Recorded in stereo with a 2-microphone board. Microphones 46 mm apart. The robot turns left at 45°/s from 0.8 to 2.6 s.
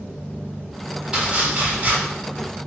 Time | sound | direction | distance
1.1 | chopping | 15° right | 1.9 m